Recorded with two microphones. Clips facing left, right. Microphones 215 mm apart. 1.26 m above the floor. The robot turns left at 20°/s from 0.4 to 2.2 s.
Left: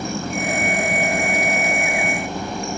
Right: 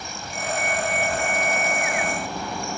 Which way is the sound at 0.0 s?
55° left.